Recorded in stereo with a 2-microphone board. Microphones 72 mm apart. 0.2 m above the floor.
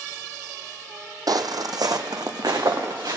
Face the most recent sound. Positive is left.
turn(degrees=-65)  # may be behind; listen again after turning